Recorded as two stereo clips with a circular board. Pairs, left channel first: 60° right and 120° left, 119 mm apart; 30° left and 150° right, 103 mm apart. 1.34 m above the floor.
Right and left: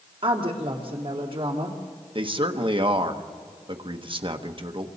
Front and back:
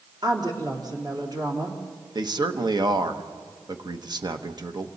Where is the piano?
I don't hear a piano.